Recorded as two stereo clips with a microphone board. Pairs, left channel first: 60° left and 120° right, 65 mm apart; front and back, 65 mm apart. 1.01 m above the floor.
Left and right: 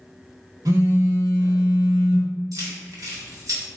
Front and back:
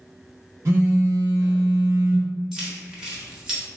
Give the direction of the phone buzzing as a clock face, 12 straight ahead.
5 o'clock.